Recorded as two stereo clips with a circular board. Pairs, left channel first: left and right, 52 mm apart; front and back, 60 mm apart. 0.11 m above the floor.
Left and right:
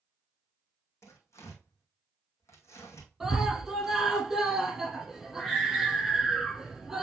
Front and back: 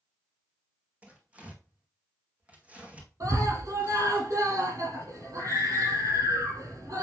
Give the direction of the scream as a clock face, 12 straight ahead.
6 o'clock.